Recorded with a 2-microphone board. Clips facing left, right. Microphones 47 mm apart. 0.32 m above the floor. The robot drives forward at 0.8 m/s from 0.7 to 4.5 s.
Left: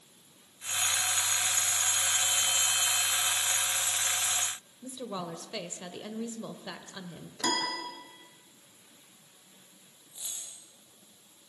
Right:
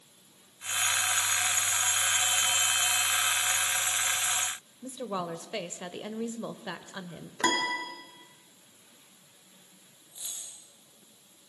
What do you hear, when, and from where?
4.8 s a woman speaking: 20° right (ahead or behind), 1.0 m
7.4 s a piano: 35° right (ahead or behind), 3 m
10.1 s a dropped coin: centre (ahead or behind), 9 m